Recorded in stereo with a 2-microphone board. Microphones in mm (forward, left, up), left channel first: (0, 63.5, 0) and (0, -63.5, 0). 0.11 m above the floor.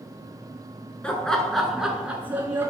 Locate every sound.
1.0 s laughter: 10° left (ahead or behind), 1.1 m; by 2.7 s 20° right (ahead or behind), 1.1 m